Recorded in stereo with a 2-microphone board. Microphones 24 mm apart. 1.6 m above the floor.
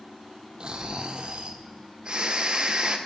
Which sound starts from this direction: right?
Snoring, at 0.6 s.